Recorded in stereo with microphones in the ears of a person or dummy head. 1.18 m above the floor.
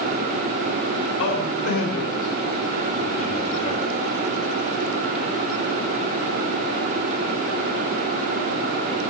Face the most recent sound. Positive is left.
turn(degrees=40)  # may be behind; listen again after turning